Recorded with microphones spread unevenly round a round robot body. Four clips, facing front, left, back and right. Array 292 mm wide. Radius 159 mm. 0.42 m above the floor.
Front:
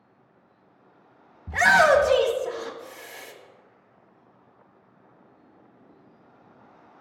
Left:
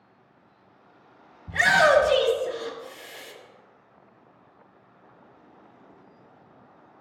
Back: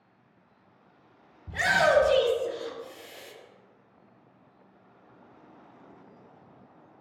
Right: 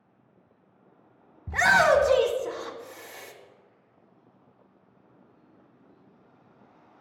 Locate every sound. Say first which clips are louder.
1.5 s a shout: left 1 dB, front 6 dB; 60° right, 1.3 m